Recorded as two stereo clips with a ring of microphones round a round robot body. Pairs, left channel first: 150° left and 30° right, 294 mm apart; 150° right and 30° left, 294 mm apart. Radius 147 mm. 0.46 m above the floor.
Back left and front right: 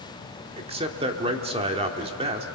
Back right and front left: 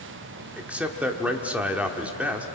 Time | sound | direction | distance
0.6 | a man speaking | 45° right | 1.4 m